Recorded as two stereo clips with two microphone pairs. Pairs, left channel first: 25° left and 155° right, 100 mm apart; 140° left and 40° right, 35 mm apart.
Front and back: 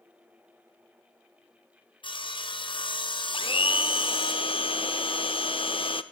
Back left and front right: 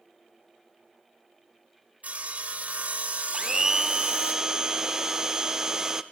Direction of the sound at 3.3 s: 25° left.